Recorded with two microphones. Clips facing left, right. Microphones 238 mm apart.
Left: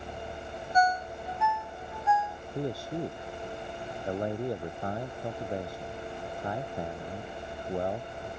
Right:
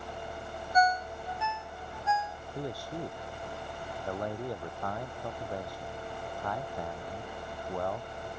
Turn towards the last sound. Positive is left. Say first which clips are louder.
# left 5 dB
turn(degrees=25)  # may be behind; listen again after turning